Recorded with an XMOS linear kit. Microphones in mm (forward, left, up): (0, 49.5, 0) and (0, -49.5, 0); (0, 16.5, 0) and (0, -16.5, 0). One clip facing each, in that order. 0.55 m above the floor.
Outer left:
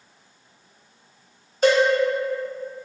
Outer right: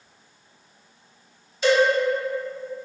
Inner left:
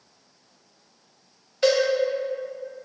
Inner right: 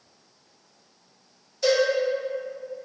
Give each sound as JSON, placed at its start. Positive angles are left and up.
{"t": 1.6, "sound": "a cowbell", "side_deg": 40, "distance_m": 0.6}